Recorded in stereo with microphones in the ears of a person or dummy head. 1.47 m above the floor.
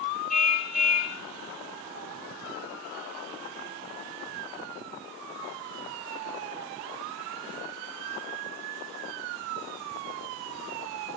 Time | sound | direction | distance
0.3 | a car horn | centre (ahead or behind) | 4 m